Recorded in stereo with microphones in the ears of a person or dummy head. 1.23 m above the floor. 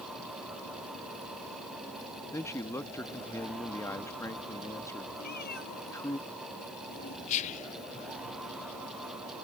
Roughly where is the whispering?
Left.